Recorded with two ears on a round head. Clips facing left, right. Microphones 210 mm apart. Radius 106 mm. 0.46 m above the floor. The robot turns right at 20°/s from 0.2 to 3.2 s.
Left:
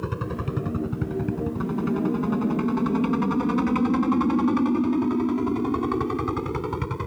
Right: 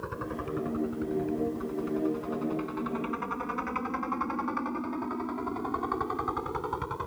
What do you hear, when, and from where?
0.0 s a helicopter: 45° left (ahead or behind); by 7.1 s 35° left (ahead or behind)